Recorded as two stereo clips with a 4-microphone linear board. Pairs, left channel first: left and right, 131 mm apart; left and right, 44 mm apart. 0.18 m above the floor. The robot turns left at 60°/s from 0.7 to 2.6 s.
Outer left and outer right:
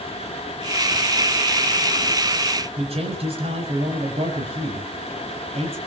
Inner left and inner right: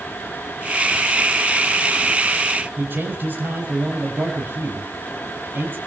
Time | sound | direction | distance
2.8 | a man speaking | 50° right (ahead or behind) | 6.5 m